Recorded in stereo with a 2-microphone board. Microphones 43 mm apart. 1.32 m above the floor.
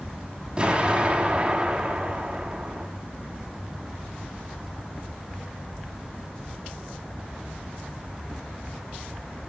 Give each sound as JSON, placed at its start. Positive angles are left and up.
{"t": 0.6, "sound": "an explosion", "side_deg": -25, "distance_m": 4.0}